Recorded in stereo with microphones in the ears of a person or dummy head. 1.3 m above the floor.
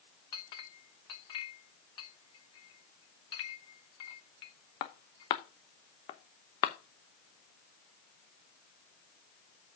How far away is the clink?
About 0.8 m.